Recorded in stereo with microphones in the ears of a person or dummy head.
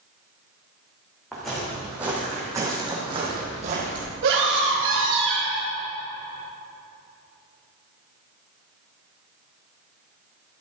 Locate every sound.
1.3 s footsteps: centre (ahead or behind), 4.5 m; by 4.1 s 50° right (ahead or behind), 3.5 m
4.2 s a scream: 70° right (ahead or behind), 3 m